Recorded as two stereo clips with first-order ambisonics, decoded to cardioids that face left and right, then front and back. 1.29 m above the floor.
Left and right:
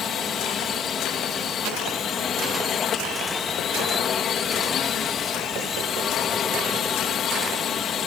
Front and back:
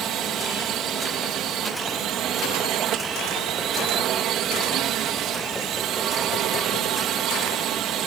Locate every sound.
0.0 s a drone: 140° left